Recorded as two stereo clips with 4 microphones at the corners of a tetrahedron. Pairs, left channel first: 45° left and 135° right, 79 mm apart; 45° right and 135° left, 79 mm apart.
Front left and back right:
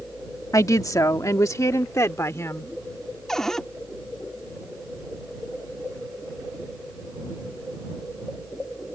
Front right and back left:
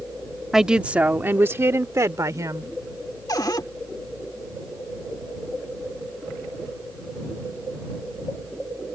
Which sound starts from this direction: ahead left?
A woman speaking, at 0.5 s.